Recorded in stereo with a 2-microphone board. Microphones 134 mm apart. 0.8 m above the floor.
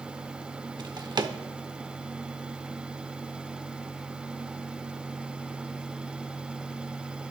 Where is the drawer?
35° right (ahead or behind), 0.8 m.